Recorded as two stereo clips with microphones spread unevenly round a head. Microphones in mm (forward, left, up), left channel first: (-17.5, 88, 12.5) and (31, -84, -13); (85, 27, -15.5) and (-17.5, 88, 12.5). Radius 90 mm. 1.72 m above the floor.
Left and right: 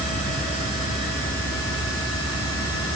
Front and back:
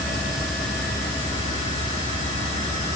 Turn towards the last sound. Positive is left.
No sound to turn to.